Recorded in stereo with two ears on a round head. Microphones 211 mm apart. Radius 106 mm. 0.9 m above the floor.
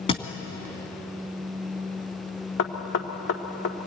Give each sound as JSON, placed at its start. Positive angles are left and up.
{"t": 0.1, "sound": "a thud", "side_deg": 25, "distance_m": 2.0}
{"t": 2.6, "sound": "knocking", "side_deg": 55, "distance_m": 1.7}